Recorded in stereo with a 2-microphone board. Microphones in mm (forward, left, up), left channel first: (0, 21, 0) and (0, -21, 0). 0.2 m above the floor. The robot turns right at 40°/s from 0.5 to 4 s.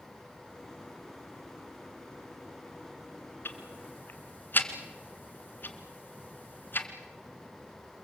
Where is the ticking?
60° left (ahead or behind), 1.9 m; by 6.9 s 55° left (ahead or behind), 1.9 m.